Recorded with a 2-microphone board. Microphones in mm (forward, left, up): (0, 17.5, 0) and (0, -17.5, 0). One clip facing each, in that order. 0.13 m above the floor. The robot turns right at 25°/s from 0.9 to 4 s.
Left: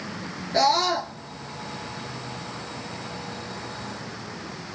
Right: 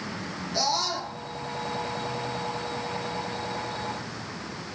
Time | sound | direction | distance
0.5 | a scream | 45° left (ahead or behind) | 1.5 m